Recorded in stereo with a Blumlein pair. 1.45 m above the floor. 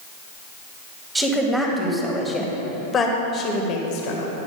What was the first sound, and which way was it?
A woman speaking, 10° right.